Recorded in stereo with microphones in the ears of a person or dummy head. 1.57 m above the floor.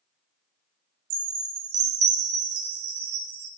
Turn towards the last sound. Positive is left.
turn(degrees=-75)  # may be behind; listen again after turning